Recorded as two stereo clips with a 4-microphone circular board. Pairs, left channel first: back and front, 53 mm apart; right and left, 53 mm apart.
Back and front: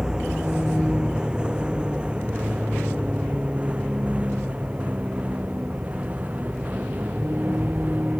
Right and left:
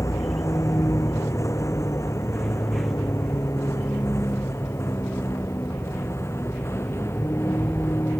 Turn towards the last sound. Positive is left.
turn(degrees=-60)